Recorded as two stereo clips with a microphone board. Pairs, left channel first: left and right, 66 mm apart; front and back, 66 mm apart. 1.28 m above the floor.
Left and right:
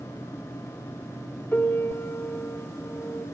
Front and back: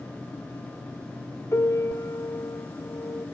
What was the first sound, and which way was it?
A piano, 35° left.